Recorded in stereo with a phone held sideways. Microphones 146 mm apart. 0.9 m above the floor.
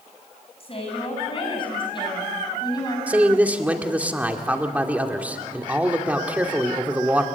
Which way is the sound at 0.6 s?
40° left (ahead or behind).